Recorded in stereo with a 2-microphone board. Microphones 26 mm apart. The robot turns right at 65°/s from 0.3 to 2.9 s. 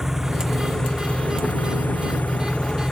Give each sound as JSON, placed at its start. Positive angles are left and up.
{"t": 0.0, "sound": "an engine running", "azimuth_deg": -15}